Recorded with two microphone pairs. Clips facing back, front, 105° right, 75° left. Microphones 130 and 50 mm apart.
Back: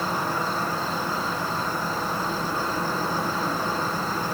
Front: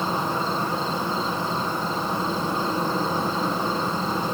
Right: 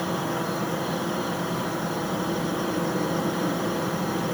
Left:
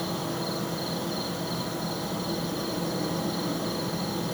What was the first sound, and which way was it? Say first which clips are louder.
An insect: front 1 dB, right 4 dB; 70° right.